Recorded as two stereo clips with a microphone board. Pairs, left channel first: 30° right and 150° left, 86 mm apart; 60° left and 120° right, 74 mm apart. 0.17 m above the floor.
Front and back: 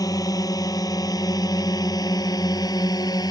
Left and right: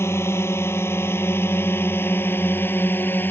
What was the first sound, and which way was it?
A drone, 10° left.